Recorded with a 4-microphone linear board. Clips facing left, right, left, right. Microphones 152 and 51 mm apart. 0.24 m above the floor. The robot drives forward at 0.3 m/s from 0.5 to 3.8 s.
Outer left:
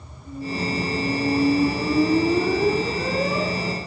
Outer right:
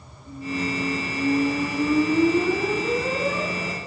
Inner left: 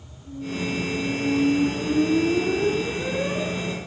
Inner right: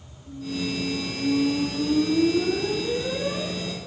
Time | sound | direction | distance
0.2 | a squeak | 65° left (ahead or behind) | 2.5 m